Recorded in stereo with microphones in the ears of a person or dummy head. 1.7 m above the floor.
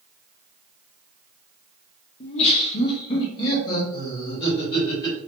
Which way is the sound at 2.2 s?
40° left (ahead or behind).